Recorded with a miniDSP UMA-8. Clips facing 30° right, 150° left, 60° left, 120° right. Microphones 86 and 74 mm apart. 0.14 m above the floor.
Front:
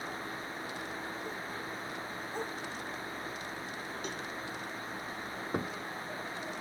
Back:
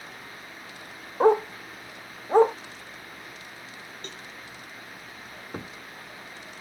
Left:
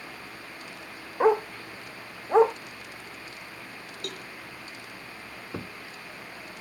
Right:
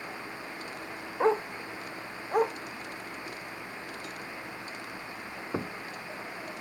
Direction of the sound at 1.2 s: 140° left.